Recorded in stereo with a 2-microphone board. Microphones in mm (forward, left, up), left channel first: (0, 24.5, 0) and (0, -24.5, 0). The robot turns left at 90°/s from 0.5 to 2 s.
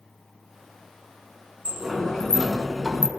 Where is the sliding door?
155° right, 1.0 m; by 3.1 s 175° left, 1.0 m.